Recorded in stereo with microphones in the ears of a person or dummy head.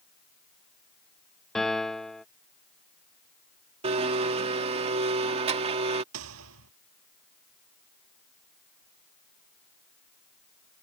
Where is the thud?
85° right.